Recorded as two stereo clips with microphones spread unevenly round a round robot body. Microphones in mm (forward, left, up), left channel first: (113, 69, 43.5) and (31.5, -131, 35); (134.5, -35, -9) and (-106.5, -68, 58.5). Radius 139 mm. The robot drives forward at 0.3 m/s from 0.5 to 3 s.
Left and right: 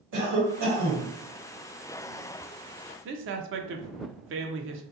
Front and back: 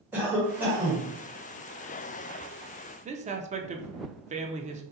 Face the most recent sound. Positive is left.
turn(degrees=-100)